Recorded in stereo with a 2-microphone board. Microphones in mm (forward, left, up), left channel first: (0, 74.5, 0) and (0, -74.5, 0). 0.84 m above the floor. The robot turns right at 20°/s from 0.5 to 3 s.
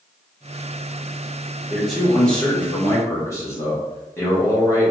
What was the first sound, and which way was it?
A man speaking, 5° right (ahead or behind).